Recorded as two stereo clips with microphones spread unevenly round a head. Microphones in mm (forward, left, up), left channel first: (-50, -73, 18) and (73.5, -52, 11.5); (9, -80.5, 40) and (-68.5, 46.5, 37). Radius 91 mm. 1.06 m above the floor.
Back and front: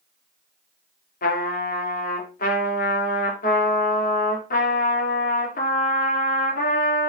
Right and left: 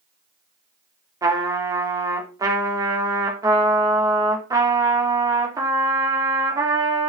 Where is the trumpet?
170° right, 3 m.